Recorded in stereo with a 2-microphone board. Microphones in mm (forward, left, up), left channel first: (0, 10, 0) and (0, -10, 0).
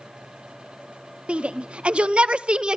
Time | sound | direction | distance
1.3 | a shout | 75° right (ahead or behind) | 1.7 m